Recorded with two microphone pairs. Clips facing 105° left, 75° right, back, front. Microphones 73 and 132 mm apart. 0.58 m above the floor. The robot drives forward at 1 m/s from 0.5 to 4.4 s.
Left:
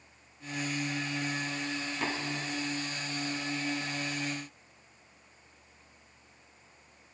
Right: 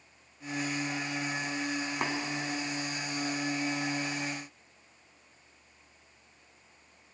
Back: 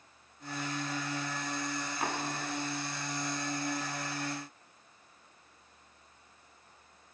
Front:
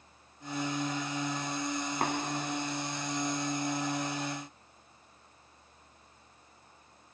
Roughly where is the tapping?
Ahead right.